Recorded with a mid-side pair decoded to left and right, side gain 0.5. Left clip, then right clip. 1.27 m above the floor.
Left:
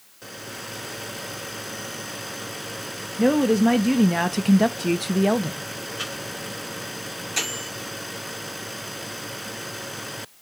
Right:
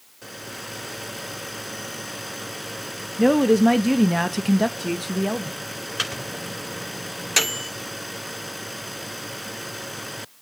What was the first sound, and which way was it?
A woman speaking, 15° right.